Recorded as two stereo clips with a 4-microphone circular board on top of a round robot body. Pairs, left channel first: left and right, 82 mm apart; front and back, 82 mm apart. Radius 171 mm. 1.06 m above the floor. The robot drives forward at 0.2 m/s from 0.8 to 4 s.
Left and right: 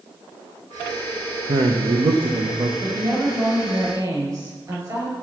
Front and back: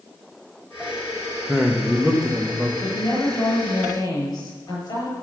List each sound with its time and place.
1.5 s a man speaking: 90° right, 1.2 m; by 2.7 s 100° right, 1.2 m
2.8 s a woman speaking: 40° right, 5.5 m